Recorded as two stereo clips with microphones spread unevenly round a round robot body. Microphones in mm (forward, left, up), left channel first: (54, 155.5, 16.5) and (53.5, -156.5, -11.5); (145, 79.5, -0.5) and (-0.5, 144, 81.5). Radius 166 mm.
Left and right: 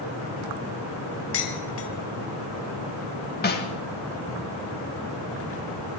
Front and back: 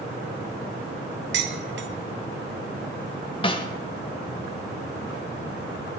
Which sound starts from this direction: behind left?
Dishes clattering, at 1.3 s.